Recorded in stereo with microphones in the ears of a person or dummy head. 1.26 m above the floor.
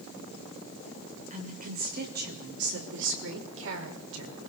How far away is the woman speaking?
About 6 m.